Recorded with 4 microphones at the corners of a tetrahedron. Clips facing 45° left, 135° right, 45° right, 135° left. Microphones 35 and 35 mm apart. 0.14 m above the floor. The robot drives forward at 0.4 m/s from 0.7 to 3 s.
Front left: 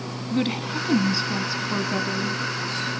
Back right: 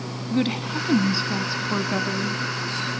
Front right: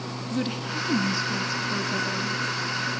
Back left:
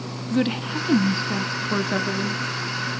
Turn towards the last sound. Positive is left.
turn(degrees=160)